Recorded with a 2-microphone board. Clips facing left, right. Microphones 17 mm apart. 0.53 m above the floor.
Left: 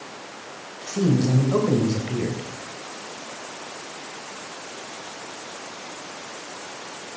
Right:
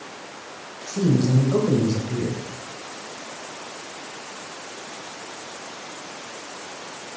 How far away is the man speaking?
About 3 m.